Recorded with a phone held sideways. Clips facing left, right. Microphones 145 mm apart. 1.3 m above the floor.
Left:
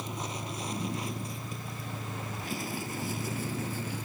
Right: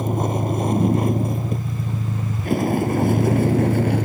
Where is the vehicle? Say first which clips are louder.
Right 15 dB; 55° right (ahead or behind); by 4.0 s 70° right (ahead or behind).